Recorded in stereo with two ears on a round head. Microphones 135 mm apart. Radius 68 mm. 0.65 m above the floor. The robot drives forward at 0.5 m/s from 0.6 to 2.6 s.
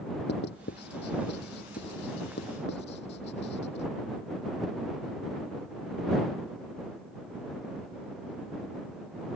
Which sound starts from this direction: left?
Writing, at 0.3 s.